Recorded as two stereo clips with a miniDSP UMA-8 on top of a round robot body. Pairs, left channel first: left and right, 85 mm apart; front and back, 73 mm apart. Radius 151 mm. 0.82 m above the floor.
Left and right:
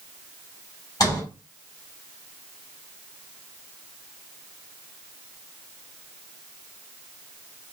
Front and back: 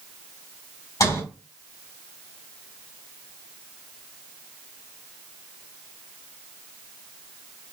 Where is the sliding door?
40° left, 2.5 m.